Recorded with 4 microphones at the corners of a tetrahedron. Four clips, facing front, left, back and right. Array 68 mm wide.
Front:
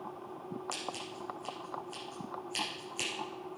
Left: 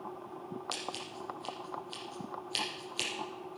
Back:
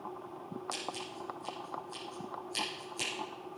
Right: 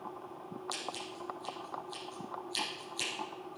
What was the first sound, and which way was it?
Scissors, 80° left.